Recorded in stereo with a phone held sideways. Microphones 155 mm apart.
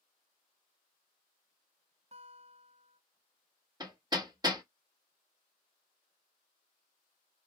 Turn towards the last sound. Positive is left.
turn(degrees=-25)  # may be behind; listen again after turning